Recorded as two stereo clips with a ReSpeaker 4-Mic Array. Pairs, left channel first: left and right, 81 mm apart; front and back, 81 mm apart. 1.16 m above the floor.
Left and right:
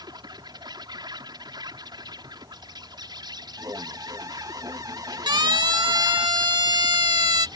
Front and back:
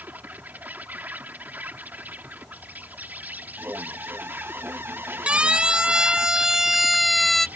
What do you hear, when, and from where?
0.0 s an insect: 115° right
3.6 s an alarm: 125° right
5.3 s a siren: 105° right; by 7.5 s 85° right